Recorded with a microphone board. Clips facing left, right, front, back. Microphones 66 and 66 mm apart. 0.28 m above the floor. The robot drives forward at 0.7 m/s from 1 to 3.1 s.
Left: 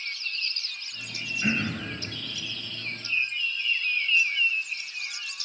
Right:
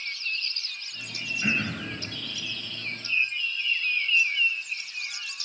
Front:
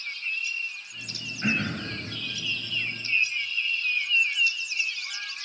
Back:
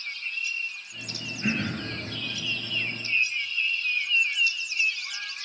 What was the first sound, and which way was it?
Throat clearing, 5° left.